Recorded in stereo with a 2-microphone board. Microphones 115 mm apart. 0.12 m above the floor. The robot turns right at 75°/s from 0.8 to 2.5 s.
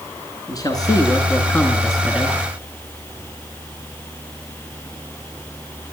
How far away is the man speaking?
About 1.9 m.